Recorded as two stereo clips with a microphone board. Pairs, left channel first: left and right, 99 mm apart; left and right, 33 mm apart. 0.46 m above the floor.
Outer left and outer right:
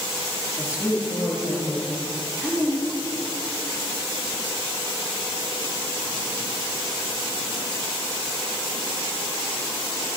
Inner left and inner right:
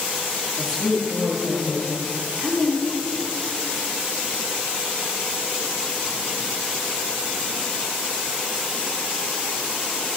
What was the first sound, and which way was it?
A woman speaking, 10° right (ahead or behind).